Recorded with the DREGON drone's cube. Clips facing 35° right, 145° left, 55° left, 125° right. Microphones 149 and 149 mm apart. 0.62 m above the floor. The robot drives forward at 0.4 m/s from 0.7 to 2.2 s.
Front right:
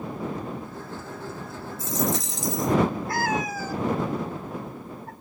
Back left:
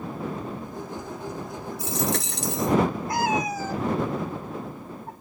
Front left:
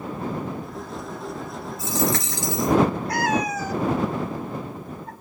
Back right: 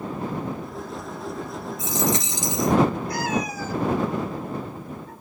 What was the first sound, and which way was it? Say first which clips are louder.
A dropped coin: front right 1 dB, front left 1 dB; 165° left.